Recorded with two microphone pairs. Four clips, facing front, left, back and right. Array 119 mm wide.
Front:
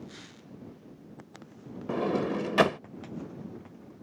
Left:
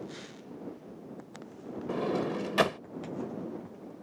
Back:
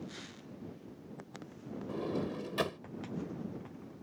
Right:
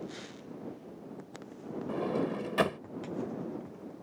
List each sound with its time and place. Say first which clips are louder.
1.9 s a sliding door: left 2 dB, front 9 dB; 15° left